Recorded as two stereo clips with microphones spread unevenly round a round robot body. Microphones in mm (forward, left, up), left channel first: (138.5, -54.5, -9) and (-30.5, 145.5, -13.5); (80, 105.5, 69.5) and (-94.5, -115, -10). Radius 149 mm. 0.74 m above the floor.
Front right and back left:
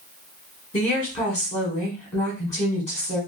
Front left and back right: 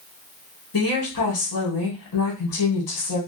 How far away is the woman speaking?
About 1.3 m.